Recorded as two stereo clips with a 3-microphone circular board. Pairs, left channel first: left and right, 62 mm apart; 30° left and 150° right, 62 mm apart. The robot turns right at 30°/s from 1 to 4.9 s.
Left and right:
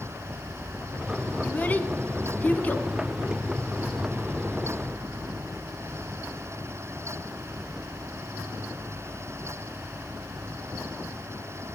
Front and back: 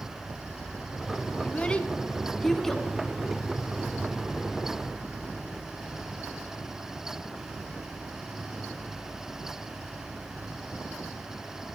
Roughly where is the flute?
I don't hear a flute.